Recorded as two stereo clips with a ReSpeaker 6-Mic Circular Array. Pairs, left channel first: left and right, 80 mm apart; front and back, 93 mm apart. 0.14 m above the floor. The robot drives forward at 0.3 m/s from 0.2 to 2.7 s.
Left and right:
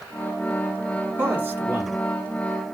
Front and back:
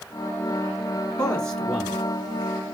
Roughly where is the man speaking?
Ahead right.